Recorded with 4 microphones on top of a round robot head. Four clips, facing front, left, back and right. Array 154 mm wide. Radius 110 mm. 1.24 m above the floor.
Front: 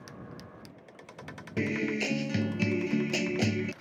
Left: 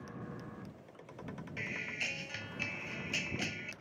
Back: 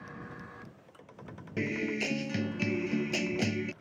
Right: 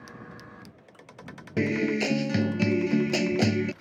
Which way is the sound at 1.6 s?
90° right.